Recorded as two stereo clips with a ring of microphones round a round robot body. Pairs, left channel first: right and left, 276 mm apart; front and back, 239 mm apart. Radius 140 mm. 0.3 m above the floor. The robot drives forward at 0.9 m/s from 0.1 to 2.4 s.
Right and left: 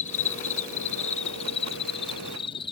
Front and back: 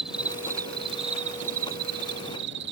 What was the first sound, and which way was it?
An insect, 95° right.